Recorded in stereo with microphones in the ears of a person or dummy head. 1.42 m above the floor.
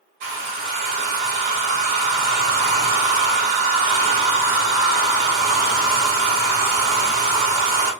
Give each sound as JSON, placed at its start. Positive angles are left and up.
{"t": 0.2, "sound": "a hair dryer", "side_deg": -60, "distance_m": 1.8}